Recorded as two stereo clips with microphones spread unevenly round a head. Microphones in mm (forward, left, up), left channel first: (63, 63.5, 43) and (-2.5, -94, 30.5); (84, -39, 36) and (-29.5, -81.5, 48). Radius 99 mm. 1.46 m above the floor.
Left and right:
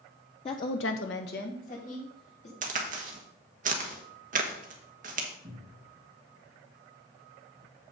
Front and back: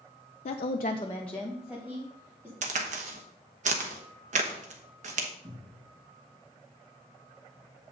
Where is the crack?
165° right, 1.0 m.